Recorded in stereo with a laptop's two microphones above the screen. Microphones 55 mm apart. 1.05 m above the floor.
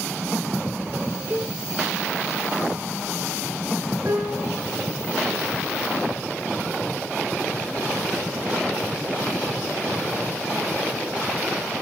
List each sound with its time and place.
1.3 s a cowbell: 25° right (ahead or behind), 1.1 m
4.0 s a piano: 50° right (ahead or behind), 4.5 m